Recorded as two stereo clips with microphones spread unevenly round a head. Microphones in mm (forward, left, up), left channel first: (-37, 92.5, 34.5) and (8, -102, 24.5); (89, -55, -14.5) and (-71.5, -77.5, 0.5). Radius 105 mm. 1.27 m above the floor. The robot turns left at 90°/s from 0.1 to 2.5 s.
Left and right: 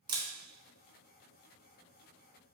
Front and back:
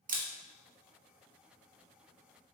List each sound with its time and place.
0.1 s a camera shutter: 145° right, 0.9 m; by 0.3 s 160° right, 0.9 m